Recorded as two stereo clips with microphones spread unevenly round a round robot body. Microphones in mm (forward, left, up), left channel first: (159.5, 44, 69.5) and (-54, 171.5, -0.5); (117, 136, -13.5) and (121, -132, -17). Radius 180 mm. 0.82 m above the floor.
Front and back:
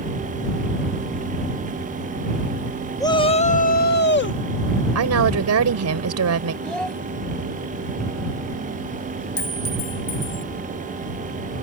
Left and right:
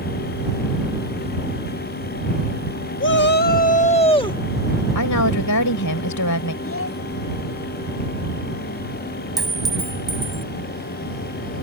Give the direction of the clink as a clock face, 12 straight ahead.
12 o'clock.